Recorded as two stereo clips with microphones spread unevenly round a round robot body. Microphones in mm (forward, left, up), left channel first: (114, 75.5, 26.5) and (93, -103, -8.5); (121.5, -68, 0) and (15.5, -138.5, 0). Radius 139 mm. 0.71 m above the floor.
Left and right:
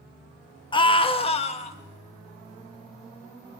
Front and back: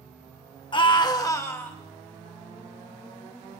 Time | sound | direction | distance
0.7 | a scream | 20° left | 1.1 m